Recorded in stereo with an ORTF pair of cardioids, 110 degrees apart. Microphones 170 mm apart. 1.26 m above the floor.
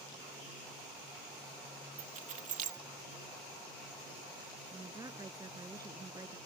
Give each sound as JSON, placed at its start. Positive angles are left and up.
{"t": 2.0, "sound": "keys jangling", "azimuth_deg": -50}
{"t": 4.7, "sound": "a woman speaking", "azimuth_deg": -20}